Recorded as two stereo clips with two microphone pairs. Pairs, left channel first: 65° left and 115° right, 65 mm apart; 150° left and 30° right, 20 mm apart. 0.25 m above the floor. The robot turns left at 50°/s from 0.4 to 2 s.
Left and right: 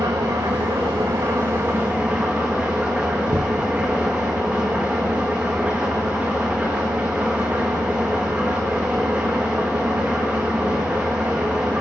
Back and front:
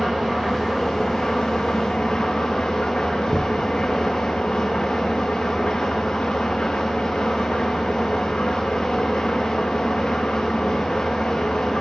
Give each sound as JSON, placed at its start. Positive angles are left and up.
{"t": 0.0, "sound": "an engine running", "azimuth_deg": -105, "distance_m": 6.5}
{"t": 3.3, "sound": "knocking", "azimuth_deg": -115, "distance_m": 1.5}